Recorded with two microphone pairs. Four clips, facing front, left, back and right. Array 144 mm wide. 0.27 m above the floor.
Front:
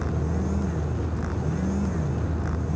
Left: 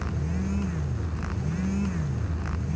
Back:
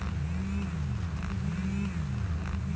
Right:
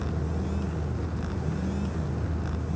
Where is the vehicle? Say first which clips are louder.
Even, front 8 dB; 15° right.